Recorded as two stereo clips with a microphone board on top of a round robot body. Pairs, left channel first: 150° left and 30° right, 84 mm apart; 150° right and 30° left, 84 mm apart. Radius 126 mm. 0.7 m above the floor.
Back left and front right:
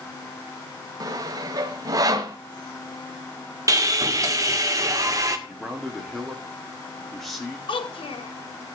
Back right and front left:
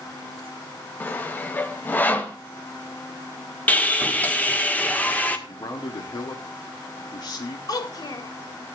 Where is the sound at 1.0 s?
80° right, 1.0 m.